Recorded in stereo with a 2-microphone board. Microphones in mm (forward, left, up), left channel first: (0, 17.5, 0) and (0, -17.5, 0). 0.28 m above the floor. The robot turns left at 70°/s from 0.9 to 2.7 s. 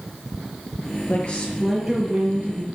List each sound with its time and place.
1.1 s a woman speaking: 45° left, 5.5 m; by 2.6 s 60° right, 5.5 m